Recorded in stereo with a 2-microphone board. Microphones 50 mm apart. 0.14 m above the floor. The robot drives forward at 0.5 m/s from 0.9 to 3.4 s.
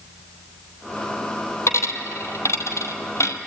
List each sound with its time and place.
1.7 s a dropped coin: 65° left (ahead or behind), 2 m; by 3.4 s 75° left (ahead or behind), 2 m